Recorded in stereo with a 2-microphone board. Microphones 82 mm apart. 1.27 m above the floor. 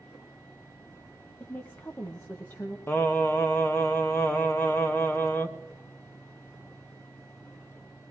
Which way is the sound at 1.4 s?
30° left (ahead or behind).